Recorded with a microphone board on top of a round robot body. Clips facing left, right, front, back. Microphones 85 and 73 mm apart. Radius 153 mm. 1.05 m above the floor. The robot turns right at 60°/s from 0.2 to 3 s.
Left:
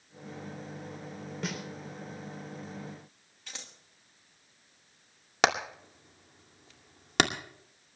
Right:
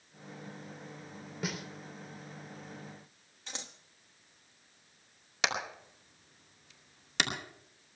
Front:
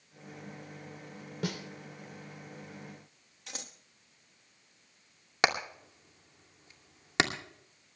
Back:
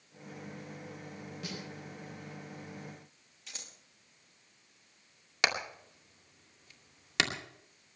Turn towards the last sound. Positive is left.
turn(degrees=60)